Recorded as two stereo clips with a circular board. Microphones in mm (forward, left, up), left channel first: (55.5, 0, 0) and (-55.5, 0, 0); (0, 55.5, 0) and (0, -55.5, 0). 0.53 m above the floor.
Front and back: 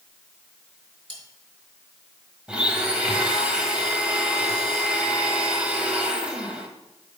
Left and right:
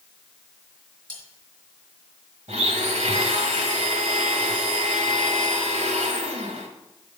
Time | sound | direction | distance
1.1 | cutlery clinking | 135° right | 3 m
2.5 | a blender | 100° right | 1.1 m